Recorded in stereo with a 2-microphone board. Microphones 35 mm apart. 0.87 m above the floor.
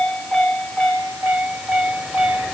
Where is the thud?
I don't hear a thud.